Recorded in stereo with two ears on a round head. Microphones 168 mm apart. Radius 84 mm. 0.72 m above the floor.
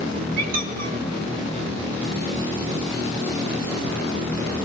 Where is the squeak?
50° right (ahead or behind), 1.3 m.